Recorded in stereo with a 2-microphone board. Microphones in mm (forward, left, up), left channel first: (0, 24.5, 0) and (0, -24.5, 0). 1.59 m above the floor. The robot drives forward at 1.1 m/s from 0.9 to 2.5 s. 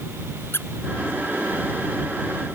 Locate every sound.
0.5 s a squeak: 55° left (ahead or behind)